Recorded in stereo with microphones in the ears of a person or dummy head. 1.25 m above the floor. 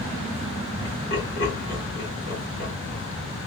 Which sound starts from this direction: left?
Laughter, at 0.8 s.